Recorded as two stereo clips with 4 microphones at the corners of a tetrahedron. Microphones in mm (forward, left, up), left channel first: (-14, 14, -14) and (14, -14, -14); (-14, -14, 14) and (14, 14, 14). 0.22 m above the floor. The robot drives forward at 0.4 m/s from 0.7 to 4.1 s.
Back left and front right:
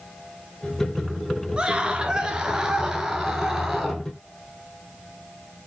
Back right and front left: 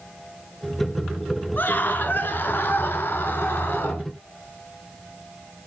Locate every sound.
1.6 s a scream: 105° right, 3 m; by 4.0 s 125° right, 3.5 m